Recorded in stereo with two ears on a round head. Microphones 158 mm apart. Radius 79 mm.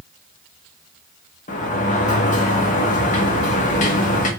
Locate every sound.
1.5 s a sliding door: 45° left (ahead or behind), 1.7 m